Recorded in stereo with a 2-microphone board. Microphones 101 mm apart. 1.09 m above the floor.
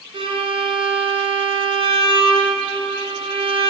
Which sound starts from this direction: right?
A violin, at 0.1 s.